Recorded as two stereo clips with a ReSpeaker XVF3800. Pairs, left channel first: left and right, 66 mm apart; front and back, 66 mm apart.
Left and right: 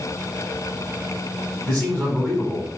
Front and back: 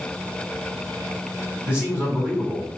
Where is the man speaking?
145° left, 1.3 m.